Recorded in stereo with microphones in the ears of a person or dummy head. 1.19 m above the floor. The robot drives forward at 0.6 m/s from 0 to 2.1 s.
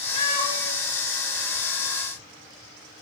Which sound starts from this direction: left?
A cat meowing, at 0.1 s.